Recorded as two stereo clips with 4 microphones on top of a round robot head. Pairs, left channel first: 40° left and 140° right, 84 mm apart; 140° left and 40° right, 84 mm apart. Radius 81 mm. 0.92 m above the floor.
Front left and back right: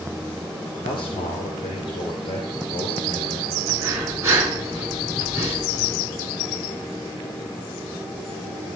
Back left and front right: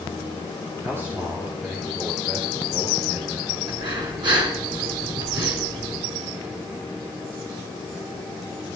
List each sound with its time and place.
0.8 s a man speaking: 25° left, 2 m; by 3.6 s 30° left, 5.5 m
3.7 s breathing: 80° right, 2.5 m